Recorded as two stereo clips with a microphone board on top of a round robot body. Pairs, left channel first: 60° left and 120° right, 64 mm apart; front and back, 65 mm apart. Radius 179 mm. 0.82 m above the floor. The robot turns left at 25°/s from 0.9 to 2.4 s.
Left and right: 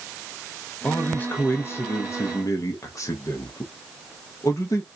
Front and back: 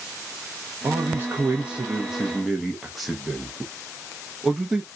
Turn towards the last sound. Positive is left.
turn(degrees=95)